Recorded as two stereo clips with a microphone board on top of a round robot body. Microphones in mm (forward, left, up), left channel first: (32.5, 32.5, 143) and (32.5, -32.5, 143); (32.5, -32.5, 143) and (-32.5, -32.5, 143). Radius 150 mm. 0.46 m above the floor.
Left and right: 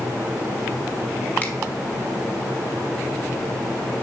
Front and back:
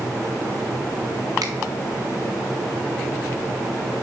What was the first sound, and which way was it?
A finger snap, 155° left.